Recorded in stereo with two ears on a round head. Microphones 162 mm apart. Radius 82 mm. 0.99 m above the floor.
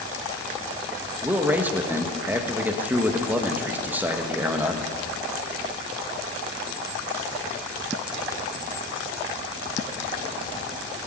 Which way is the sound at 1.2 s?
10° right (ahead or behind).